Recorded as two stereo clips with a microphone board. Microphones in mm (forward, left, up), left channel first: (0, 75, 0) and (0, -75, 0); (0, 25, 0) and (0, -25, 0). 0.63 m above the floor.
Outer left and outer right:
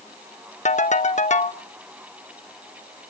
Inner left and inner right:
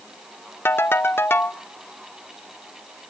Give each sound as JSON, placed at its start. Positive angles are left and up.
{"t": 0.7, "sound": "a ringtone", "side_deg": 55, "distance_m": 0.6}